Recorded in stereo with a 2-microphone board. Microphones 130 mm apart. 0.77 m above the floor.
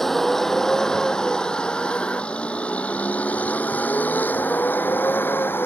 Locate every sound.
0.0 s a vehicle: centre (ahead or behind); by 5.7 s 15° left (ahead or behind)